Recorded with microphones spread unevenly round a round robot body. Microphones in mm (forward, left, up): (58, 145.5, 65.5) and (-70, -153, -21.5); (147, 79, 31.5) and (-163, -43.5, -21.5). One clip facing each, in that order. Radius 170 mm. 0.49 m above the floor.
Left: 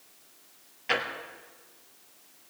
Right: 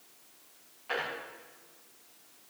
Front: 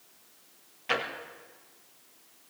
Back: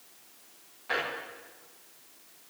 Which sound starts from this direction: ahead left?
A drawer, at 0.9 s.